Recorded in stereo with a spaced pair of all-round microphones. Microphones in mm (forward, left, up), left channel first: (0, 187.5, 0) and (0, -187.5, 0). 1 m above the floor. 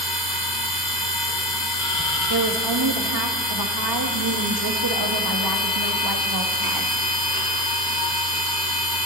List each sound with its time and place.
0.0 s a machine running: 50° left (ahead or behind), 3.5 m
2.3 s a woman speaking: 70° right (ahead or behind), 1.2 m